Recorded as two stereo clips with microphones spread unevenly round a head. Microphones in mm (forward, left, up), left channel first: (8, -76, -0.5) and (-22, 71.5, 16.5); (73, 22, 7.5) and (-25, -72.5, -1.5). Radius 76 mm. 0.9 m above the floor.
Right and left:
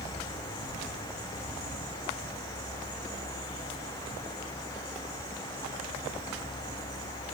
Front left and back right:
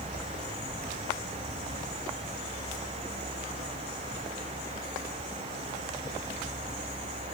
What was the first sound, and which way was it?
Only background noise.